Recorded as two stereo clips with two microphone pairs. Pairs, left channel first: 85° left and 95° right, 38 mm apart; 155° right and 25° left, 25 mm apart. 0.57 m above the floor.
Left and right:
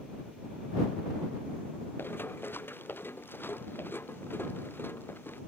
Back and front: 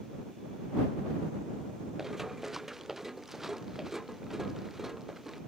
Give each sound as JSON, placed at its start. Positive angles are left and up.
{"t": 2.0, "sound": "running footsteps", "azimuth_deg": 105}